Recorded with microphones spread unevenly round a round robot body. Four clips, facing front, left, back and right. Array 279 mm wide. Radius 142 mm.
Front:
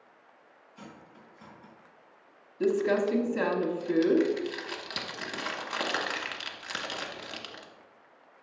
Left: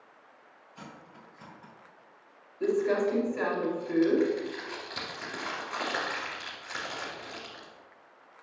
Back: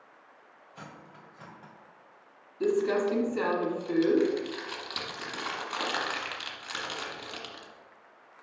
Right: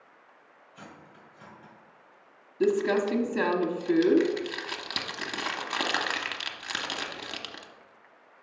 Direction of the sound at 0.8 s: Straight behind.